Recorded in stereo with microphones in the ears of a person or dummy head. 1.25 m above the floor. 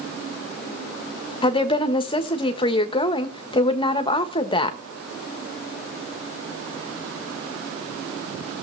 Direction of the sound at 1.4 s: 25° left (ahead or behind).